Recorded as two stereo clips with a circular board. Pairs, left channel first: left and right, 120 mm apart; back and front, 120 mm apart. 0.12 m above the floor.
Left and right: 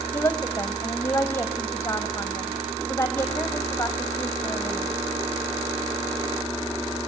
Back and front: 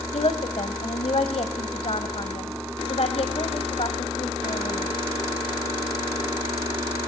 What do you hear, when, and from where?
0.1 s a woman speaking: 160° left, 4 m